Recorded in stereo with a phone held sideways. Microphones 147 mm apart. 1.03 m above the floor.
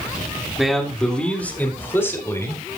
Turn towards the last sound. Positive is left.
turn(degrees=20)  # may be behind; listen again after turning